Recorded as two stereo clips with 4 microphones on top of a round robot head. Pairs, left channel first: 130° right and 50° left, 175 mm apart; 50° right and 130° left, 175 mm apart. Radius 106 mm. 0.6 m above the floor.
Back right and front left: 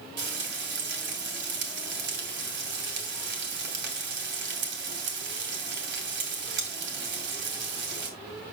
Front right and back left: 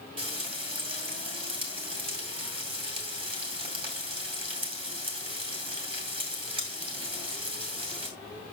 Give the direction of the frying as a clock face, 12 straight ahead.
10 o'clock.